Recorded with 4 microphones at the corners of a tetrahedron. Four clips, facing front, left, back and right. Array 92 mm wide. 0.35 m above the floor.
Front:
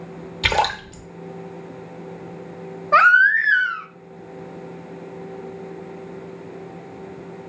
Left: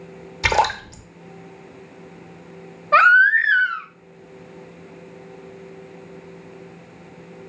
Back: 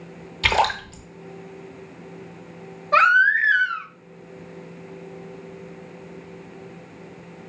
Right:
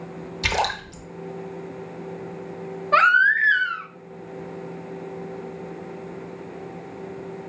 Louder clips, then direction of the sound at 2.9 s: Left 4 dB, front 3 dB; 15° left.